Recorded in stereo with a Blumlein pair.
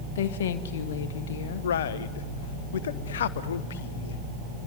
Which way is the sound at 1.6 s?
60° left.